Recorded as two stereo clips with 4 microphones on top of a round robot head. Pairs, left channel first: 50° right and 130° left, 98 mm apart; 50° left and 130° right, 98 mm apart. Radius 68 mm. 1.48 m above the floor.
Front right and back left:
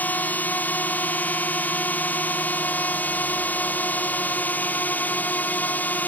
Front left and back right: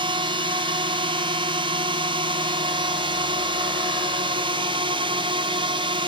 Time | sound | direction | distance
0.0 | a drone | 120° right | ?